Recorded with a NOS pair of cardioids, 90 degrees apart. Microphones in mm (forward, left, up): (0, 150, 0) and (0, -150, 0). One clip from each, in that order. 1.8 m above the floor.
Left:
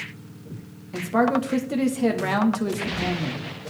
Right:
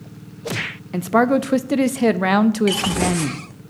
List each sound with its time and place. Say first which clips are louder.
0.9 s a man speaking: right 5 dB; 35° right, 0.6 m